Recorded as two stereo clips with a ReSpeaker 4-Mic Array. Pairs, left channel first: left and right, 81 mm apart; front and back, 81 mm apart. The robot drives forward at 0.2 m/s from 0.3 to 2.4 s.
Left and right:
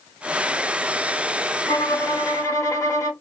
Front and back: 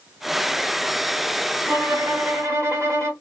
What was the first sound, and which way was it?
A violin, 125° left.